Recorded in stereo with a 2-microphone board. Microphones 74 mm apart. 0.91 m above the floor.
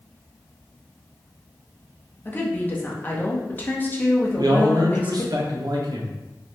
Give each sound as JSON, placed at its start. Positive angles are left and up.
{"t": 2.2, "sound": "a woman speaking", "side_deg": 25, "distance_m": 0.7}
{"t": 4.4, "sound": "a man speaking", "side_deg": -60, "distance_m": 0.7}